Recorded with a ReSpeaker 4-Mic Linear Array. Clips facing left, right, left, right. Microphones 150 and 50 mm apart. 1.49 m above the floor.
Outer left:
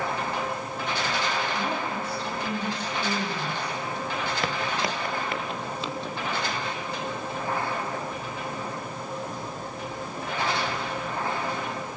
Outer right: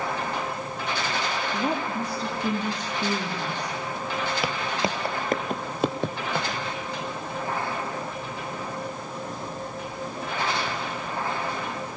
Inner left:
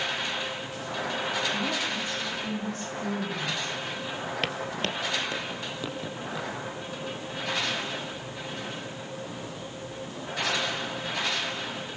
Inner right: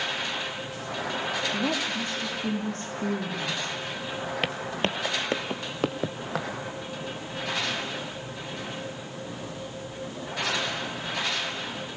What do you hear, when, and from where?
1.5 s a woman speaking: 40° right (ahead or behind), 4 m
4.4 s footsteps: 5° right (ahead or behind), 1.5 m; by 6.5 s 60° right (ahead or behind), 3 m